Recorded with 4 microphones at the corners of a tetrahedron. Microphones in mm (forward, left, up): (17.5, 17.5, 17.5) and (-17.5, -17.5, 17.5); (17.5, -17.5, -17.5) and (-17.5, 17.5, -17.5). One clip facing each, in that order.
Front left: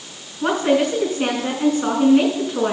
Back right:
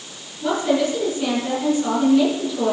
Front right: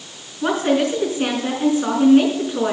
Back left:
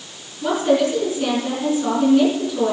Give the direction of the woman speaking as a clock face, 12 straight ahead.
12 o'clock.